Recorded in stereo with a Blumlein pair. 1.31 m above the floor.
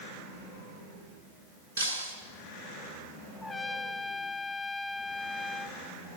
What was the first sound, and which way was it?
Breaking glass, 60° right.